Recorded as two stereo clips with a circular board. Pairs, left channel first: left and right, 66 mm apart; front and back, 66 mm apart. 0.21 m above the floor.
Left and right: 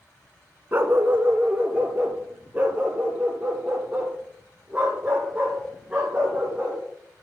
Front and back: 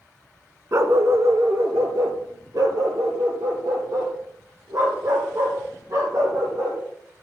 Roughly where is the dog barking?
Behind right.